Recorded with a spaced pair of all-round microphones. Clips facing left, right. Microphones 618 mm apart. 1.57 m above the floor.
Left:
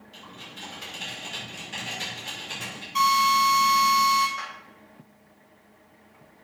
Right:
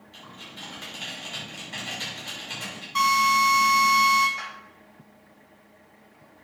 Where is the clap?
40° left (ahead or behind), 6.5 m.